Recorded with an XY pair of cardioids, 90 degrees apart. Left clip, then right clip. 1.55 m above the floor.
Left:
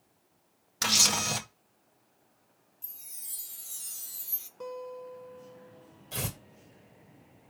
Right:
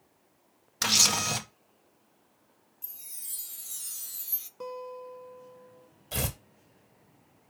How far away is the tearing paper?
About 1.9 m.